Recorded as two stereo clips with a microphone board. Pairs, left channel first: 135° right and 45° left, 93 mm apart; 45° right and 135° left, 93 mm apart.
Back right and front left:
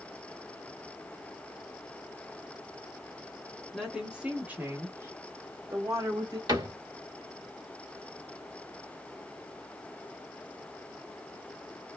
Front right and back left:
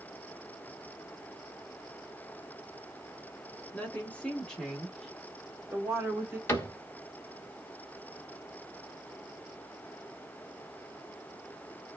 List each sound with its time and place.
3.7 s a woman speaking: 40° right, 1.2 m; by 6.4 s 65° left, 1.7 m
6.5 s a cupboard door: 15° left, 1.5 m